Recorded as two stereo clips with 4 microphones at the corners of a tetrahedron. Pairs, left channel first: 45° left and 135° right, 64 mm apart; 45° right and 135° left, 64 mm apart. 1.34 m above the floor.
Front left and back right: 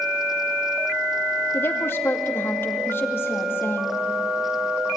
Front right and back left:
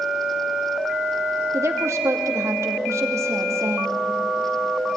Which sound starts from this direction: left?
A woman speaking, at 1.5 s.